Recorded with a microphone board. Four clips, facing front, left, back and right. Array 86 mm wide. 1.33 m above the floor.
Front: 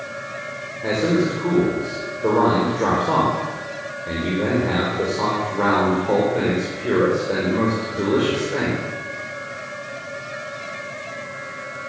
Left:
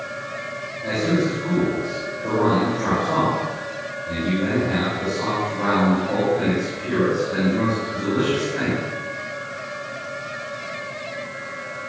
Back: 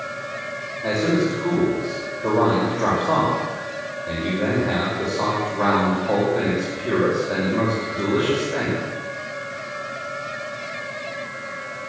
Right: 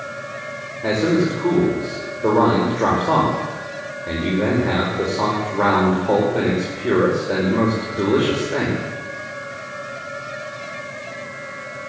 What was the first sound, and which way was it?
A man speaking, 70° right.